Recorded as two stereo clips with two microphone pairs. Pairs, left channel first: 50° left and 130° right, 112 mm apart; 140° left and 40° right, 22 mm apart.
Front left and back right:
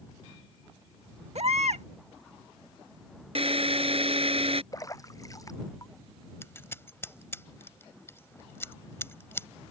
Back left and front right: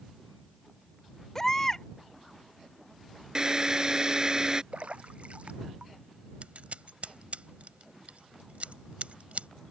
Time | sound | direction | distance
1.4 | a baby crying | 150° right | ?
3.4 | a drill | 100° right | ?
4.7 | a splash | 10° right | ?
6.4 | scissors | 20° right | ?